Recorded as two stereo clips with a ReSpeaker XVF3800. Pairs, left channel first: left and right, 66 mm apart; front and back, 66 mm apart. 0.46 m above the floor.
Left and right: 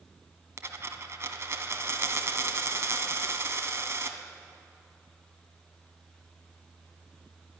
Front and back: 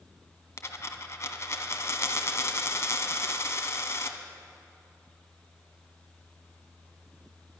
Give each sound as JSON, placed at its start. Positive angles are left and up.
{"t": 0.6, "sound": "a dropped coin", "azimuth_deg": -45, "distance_m": 1.0}